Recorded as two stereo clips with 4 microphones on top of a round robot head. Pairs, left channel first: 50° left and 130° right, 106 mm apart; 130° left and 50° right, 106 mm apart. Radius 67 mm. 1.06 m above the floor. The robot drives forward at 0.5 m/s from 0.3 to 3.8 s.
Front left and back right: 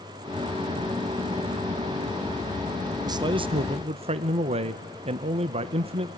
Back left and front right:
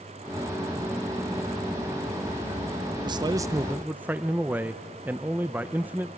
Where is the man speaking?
85° right, 0.6 m; by 6.1 s 125° right, 0.7 m.